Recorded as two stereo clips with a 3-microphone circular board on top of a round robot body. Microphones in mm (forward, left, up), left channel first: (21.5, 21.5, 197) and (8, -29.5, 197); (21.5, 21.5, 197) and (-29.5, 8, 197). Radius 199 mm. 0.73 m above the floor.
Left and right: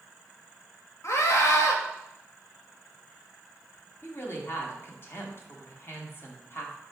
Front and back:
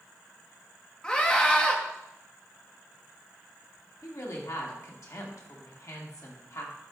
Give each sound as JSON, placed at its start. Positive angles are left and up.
{"t": 1.0, "sound": "a scream", "azimuth_deg": 85, "distance_m": 1.8}
{"t": 4.0, "sound": "a woman speaking", "azimuth_deg": 30, "distance_m": 2.0}